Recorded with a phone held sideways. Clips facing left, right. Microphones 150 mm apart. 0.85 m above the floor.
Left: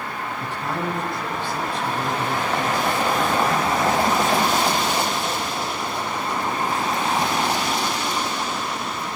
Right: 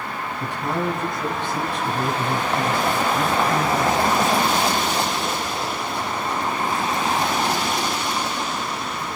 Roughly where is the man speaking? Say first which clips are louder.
Right 3 dB; centre.